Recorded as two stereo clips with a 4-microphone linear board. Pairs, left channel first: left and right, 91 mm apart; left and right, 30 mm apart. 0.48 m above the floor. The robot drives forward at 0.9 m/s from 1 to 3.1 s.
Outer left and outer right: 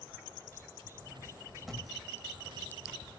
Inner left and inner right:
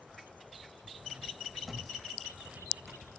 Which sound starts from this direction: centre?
A thud, at 1.6 s.